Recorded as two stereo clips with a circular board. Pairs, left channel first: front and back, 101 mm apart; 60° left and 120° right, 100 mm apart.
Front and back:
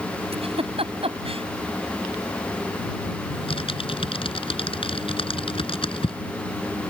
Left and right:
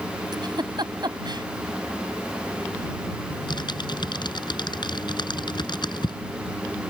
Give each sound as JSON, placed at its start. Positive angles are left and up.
{"t": 0.3, "sound": "a giggle", "azimuth_deg": -165}
{"t": 3.3, "sound": "typing on a keyboard", "azimuth_deg": 20}